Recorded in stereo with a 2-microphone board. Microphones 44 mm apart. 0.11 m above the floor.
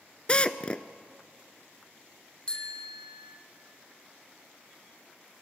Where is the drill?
25° left (ahead or behind), 0.8 m.